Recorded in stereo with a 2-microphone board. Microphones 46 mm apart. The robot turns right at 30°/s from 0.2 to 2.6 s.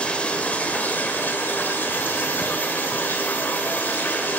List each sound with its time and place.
0.0 s running water: 40° left, 1.9 m; by 4.4 s 110° left, 1.9 m